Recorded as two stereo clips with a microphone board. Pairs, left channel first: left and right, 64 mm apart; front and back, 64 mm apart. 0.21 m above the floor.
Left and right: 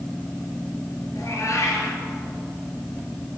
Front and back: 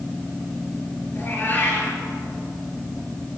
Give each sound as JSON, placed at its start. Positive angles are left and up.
{"t": 1.1, "sound": "a cat meowing", "azimuth_deg": 55, "distance_m": 2.0}